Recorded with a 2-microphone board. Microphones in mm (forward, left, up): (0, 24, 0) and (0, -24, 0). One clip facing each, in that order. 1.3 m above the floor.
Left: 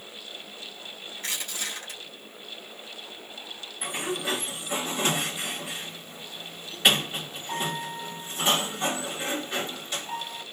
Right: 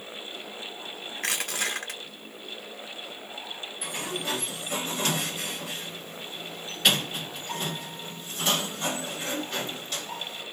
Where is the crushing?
60° right (ahead or behind), 1.2 m.